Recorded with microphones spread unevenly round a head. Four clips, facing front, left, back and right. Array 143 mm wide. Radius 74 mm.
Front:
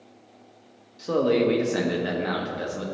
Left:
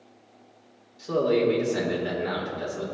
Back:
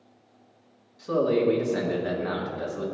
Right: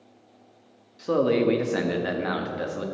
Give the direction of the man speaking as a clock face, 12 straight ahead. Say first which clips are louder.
Right 1 dB, front 1 dB; 2 o'clock.